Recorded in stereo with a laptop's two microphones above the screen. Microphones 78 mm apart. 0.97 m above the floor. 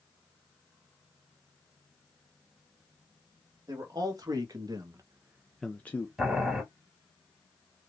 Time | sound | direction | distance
3.7 | a man speaking | 50° right (ahead or behind) | 2 m
6.2 | boiling | centre (ahead or behind) | 2.5 m